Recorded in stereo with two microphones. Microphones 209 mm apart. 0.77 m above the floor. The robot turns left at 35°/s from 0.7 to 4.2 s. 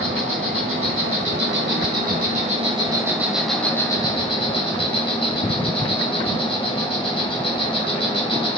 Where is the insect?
85° right, 2 m; by 8.6 s 155° left, 2 m.